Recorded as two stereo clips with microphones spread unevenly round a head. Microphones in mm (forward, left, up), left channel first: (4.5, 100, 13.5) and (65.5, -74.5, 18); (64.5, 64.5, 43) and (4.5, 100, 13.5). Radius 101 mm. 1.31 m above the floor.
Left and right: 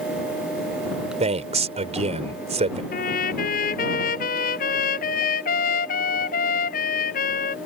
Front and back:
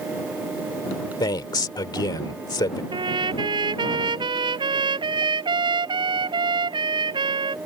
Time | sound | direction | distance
1.2 | a man speaking | 15° right | ?
2.9 | a trumpet | 160° left | ?